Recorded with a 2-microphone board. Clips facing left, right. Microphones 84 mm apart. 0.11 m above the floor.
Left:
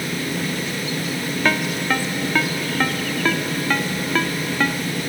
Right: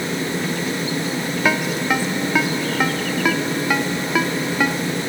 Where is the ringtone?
10° right (ahead or behind).